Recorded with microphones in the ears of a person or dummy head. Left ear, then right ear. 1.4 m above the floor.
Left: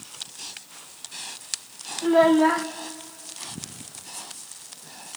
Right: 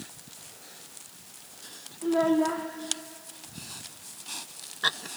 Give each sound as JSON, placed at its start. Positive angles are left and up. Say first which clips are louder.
{"t": 2.0, "sound": "a child speaking", "louder": "left 7 dB", "side_deg": 65, "distance_m": 0.8}